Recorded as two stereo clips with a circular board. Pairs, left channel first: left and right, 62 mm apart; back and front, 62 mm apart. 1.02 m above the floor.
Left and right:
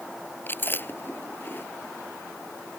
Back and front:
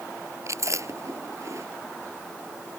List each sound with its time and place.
0.5 s chewing: 35° left